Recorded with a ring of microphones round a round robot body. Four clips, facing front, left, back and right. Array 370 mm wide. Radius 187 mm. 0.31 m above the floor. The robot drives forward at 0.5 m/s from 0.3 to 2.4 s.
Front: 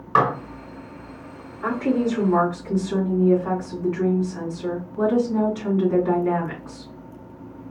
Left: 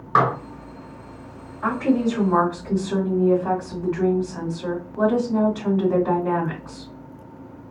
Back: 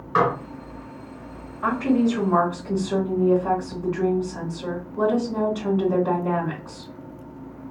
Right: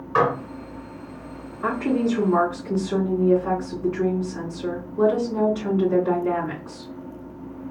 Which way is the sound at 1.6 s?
135° left.